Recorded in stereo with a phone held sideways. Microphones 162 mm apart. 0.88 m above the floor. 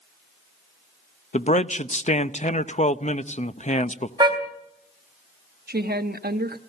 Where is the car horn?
30° right (ahead or behind), 3.5 m.